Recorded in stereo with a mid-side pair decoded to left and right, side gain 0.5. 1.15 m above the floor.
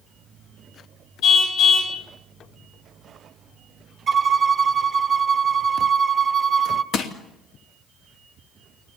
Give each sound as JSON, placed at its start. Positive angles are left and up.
{"t": 1.2, "sound": "a car horn", "azimuth_deg": 70, "distance_m": 4.0}
{"t": 4.1, "sound": "a violin", "azimuth_deg": -45, "distance_m": 2.5}
{"t": 6.9, "sound": "crushing", "azimuth_deg": 70, "distance_m": 3.0}